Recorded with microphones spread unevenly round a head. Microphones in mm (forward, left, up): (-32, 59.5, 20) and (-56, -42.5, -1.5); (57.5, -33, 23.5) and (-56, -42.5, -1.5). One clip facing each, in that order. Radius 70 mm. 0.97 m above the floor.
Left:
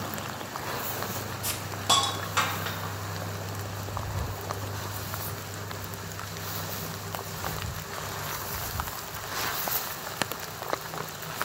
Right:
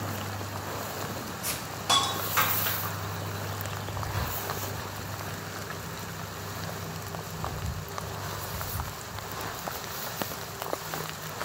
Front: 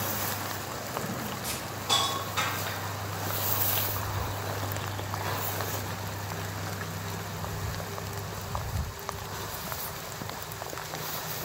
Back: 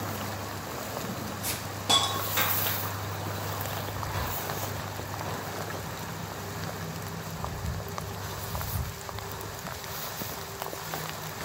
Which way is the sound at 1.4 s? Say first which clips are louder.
Left 2 dB, back 2 dB; 150° left.